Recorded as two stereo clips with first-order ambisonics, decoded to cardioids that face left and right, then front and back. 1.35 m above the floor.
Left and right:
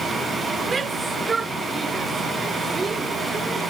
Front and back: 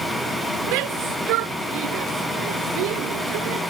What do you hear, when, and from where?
0.7 s a shout: 165° right